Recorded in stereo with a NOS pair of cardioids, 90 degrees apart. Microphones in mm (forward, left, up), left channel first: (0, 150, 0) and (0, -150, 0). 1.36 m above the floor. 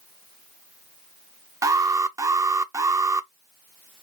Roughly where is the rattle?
No rattle in this recording.